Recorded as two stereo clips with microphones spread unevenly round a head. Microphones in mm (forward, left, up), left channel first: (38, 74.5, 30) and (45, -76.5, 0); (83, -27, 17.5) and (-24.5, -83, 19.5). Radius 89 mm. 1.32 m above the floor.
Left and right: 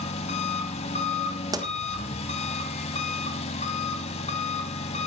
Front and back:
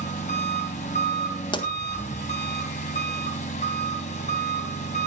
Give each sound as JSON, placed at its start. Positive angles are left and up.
{"t": 0.0, "sound": "an engine running", "azimuth_deg": 65, "distance_m": 2.0}
{"t": 1.5, "sound": "a pop", "azimuth_deg": -25, "distance_m": 1.5}